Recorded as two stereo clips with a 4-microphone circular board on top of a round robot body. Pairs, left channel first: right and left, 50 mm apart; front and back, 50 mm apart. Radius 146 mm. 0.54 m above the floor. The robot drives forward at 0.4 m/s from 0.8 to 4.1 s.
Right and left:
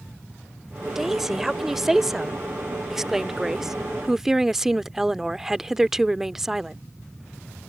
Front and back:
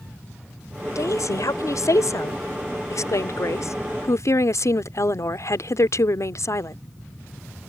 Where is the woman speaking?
5° left.